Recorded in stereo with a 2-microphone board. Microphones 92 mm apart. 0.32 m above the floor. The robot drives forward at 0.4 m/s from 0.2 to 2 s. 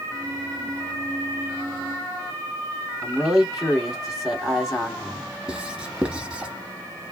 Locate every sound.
3.0 s a man speaking: centre (ahead or behind), 1.8 m
5.5 s writing: 10° right (ahead or behind), 0.6 m